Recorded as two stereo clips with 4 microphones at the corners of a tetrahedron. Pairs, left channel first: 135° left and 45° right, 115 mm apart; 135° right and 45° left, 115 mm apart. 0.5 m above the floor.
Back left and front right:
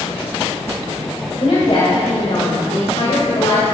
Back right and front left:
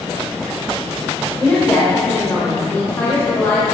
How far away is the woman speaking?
About 2.0 m.